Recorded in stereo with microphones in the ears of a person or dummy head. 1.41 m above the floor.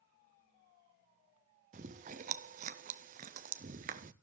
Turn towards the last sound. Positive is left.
turn(degrees=-35)  # may be behind; listen again after turning